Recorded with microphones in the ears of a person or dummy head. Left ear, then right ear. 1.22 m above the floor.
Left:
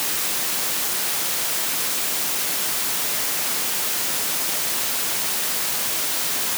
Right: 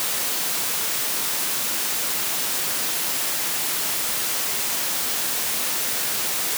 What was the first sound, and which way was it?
Only background noise.